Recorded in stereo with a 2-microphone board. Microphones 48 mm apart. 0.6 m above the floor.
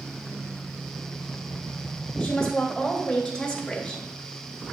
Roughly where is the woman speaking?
Left.